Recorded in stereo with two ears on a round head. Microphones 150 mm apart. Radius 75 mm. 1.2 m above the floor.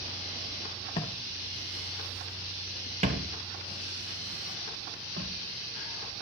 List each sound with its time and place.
1.0 s footsteps: 30° left (ahead or behind), 1.3 m; by 5.3 s 65° right (ahead or behind), 3 m